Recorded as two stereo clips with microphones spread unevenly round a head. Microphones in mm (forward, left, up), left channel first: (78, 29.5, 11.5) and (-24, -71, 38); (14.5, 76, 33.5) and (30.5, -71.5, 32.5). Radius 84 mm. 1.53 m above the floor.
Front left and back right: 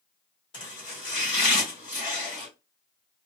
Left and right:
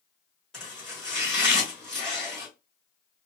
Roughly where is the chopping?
Ahead.